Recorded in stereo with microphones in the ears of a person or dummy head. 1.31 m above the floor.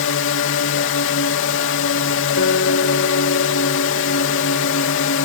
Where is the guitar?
55° left (ahead or behind).